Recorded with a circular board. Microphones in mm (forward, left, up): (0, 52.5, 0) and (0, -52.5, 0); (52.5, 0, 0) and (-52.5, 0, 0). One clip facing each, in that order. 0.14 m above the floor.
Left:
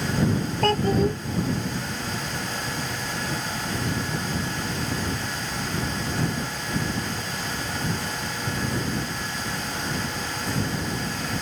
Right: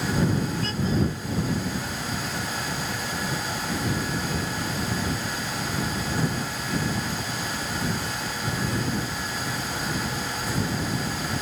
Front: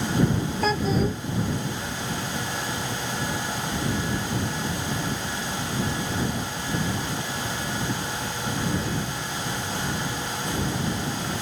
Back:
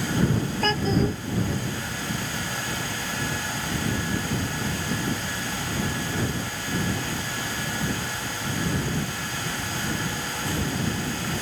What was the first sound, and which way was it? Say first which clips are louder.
A child speaking: left 9 dB, even; 85° left.